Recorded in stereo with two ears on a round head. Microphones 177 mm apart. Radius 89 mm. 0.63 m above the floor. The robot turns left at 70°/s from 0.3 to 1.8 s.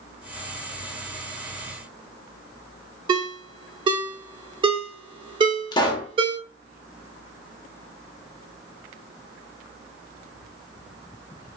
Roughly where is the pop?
Left.